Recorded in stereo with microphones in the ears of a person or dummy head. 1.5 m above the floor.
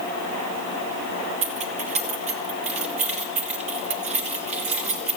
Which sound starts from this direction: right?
Keys jangling, at 1.4 s.